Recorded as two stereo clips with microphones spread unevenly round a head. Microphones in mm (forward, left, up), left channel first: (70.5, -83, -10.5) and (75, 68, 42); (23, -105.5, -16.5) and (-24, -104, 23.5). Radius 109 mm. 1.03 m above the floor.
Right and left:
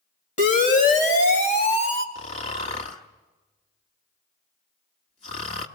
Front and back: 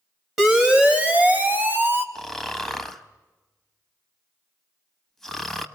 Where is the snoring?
155° right, 1.1 m.